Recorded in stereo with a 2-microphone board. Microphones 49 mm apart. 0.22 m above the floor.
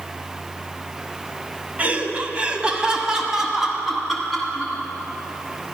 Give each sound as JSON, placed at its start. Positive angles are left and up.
{"t": 1.8, "sound": "laughter", "side_deg": -30, "distance_m": 1.2}